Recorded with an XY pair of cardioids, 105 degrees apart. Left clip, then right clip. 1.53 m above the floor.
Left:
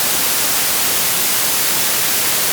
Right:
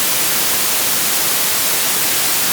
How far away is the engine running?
I don't hear an engine running.